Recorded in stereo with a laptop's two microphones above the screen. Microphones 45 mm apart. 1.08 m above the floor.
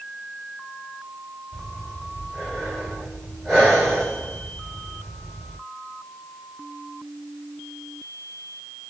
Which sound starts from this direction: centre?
Breathing, at 1.5 s.